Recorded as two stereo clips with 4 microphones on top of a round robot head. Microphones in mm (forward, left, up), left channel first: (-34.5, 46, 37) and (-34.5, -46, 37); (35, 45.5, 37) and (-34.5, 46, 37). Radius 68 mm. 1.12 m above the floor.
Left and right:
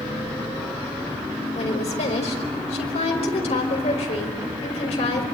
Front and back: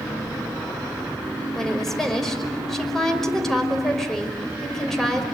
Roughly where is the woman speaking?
Left.